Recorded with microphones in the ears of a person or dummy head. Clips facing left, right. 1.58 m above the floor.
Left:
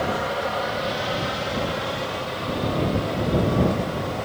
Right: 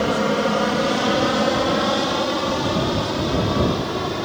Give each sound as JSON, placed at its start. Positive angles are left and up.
{"t": 0.0, "sound": "an aircraft", "side_deg": -50}